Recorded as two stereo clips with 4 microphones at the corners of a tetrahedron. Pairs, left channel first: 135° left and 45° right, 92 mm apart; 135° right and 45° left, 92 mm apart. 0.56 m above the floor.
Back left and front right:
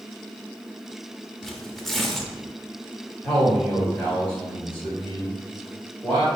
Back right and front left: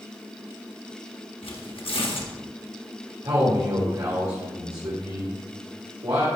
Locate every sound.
1.4 s tearing paper: 140° right, 1.0 m
3.2 s a man speaking: 65° left, 2.5 m